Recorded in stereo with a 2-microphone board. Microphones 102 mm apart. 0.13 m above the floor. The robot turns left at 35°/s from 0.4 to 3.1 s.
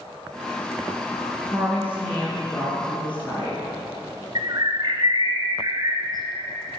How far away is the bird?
About 0.9 m.